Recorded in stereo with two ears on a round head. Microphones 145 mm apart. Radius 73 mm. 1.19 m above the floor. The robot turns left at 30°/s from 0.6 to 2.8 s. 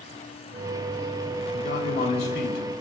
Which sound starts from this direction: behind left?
A man speaking, at 1.5 s.